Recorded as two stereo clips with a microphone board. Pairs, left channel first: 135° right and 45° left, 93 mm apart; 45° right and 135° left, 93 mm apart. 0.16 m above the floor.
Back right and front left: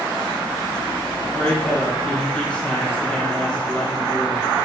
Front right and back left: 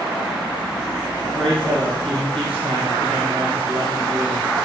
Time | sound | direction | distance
1.2 | a man speaking | 145° left | 4 m